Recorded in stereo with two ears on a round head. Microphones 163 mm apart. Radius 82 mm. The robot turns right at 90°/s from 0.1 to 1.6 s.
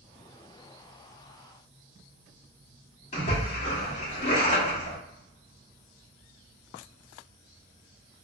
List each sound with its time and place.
3.1 s a splash: 35° left (ahead or behind), 1.1 m